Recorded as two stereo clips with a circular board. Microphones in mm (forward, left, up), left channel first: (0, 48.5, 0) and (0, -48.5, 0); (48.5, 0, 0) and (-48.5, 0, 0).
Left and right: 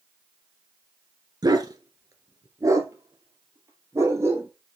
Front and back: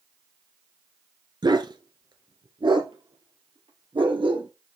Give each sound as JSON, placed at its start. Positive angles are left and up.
{"t": 1.4, "sound": "a dog barking", "azimuth_deg": -135, "distance_m": 1.4}